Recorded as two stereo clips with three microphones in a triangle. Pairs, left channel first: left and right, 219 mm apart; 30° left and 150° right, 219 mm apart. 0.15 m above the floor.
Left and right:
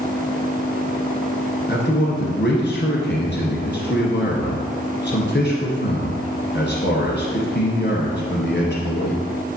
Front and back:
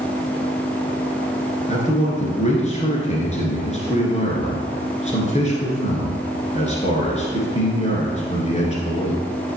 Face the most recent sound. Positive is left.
turn(degrees=80)